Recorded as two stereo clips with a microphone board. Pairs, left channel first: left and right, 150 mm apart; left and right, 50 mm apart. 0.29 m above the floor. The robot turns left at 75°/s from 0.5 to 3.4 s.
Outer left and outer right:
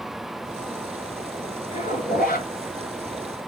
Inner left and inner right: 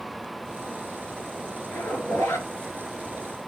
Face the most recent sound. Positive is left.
turn(degrees=5)